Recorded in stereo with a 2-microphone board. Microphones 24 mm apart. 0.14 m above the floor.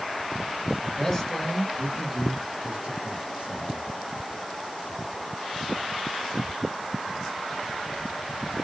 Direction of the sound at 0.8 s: 25° left (ahead or behind).